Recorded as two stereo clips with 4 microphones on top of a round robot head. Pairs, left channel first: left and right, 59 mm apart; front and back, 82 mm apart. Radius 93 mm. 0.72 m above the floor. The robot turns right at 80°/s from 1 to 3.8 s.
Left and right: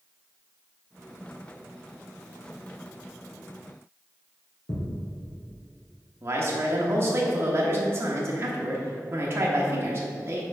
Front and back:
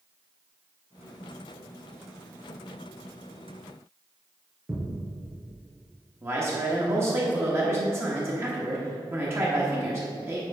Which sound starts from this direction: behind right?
A man speaking, at 6.2 s.